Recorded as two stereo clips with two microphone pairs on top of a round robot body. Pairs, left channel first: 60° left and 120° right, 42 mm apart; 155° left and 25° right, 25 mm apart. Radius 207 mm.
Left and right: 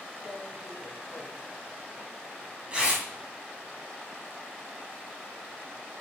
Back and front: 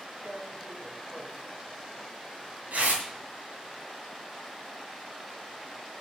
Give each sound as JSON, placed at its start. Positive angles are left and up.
{"t": 0.2, "sound": "tearing paper", "azimuth_deg": -55, "distance_m": 2.5}